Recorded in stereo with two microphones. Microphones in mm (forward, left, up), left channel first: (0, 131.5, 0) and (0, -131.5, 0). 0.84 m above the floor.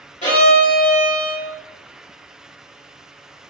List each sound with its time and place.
0.2 s a violin: 30° left (ahead or behind), 1.6 m